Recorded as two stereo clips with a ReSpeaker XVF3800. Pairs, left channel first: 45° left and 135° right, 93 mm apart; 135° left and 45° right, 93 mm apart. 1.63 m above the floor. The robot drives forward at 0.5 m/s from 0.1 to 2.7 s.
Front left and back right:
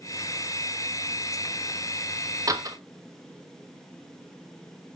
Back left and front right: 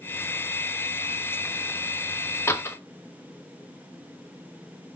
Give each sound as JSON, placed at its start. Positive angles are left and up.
{"t": 2.5, "sound": "a door slam", "azimuth_deg": -170, "distance_m": 1.2}